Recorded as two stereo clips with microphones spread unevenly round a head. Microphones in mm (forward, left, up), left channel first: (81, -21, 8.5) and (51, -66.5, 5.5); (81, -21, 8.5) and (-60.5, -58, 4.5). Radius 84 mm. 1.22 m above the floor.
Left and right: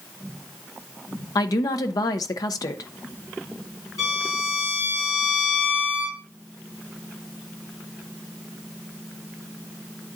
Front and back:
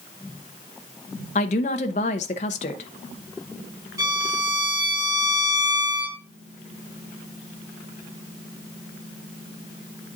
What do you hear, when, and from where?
1.4 s a woman speaking: 70° left, 0.7 m
4.0 s a violin: 120° left, 4.5 m